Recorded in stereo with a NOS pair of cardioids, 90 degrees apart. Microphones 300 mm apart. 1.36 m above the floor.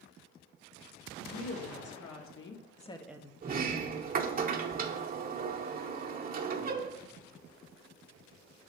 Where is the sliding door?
30° right, 0.8 m.